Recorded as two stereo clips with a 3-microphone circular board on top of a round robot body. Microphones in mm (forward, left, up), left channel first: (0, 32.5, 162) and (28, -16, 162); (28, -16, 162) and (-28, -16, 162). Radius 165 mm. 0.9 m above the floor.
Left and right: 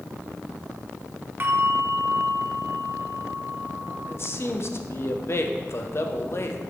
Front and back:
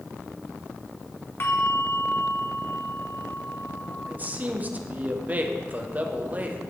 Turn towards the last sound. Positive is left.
turn(degrees=130)